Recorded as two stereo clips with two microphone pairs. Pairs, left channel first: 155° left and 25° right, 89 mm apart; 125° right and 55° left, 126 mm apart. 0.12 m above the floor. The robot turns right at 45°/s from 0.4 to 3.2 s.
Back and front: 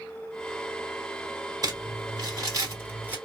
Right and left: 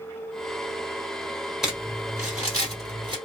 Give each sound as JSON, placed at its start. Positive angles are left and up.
{"t": 1.6, "sound": "crumpling", "azimuth_deg": -30, "distance_m": 1.7}